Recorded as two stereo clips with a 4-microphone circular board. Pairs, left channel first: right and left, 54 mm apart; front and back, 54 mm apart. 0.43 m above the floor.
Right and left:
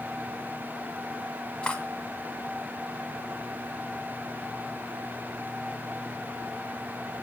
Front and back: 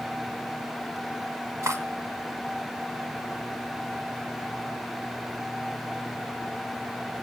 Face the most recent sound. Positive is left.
turn(degrees=-160)